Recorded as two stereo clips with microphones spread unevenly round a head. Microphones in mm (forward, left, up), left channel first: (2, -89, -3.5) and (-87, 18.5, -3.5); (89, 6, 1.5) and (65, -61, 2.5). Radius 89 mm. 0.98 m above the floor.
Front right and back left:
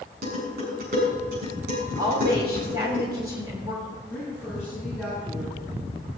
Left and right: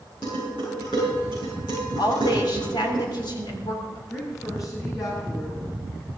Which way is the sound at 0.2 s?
130° left.